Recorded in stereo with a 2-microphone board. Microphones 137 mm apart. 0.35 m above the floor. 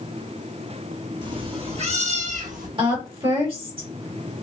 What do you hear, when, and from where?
1.2 s a cat meowing: 35° right (ahead or behind), 1.4 m; by 2.7 s 75° right (ahead or behind), 1.4 m
2.8 s a woman speaking: 40° right (ahead or behind), 1.6 m